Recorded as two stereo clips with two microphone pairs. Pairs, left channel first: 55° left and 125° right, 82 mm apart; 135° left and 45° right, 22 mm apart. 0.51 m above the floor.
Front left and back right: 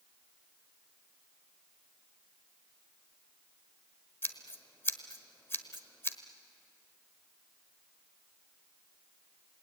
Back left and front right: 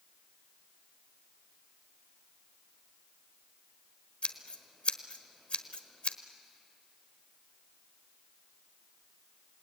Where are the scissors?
110° left, 1.1 m.